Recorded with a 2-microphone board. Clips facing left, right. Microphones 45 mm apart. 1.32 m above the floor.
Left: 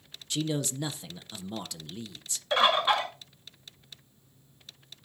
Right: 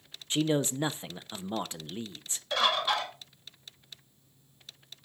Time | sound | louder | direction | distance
0.3 | a man speaking | right 4 dB | 30° right (ahead or behind) | 0.5 m
2.5 | a bird | left 4 dB | 30° left (ahead or behind) | 2.0 m